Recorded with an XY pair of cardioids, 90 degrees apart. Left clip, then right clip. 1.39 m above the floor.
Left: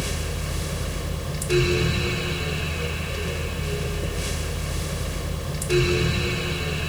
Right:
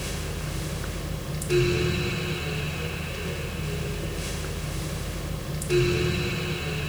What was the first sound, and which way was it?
A fan, 35° left.